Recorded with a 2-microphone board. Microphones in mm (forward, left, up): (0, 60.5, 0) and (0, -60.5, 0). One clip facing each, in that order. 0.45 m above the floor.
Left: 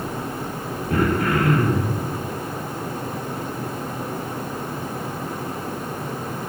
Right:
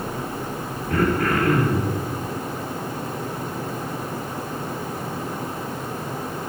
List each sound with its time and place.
0.9 s throat clearing: 25° left (ahead or behind), 5.5 m